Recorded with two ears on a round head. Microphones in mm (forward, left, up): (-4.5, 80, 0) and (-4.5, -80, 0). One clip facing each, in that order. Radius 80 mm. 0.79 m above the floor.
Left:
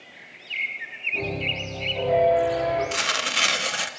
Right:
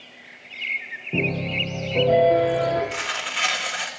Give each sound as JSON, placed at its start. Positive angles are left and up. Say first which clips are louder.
{"t": 1.1, "sound": "a piano", "louder": "right 4 dB", "side_deg": -70, "distance_m": 9.0}
{"t": 2.9, "sound": "tearing paper", "louder": "left 2 dB", "side_deg": 50, "distance_m": 0.6}